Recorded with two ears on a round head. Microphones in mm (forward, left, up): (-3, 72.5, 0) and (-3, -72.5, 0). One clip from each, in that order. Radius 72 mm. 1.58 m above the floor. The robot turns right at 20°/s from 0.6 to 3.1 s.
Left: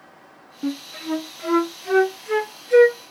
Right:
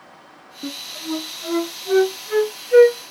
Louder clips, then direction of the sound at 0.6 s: Left 1 dB; 60° left (ahead or behind).